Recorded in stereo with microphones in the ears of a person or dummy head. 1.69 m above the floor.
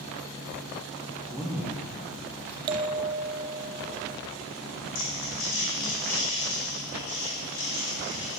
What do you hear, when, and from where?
1.3 s a man speaking: centre (ahead or behind), 1.0 m; by 2.6 s 10° right (ahead or behind), 1.6 m
2.7 s a bell: 25° right (ahead or behind), 0.7 m
5.0 s crumpling: 75° left (ahead or behind), 4 m